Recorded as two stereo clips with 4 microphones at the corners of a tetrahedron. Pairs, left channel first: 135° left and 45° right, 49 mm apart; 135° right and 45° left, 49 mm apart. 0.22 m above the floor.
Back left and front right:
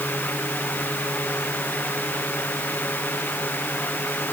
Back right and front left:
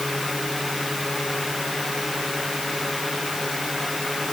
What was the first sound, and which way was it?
Only background noise.